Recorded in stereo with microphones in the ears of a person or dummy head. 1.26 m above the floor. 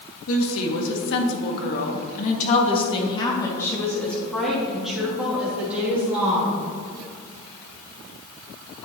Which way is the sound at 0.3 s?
70° left (ahead or behind).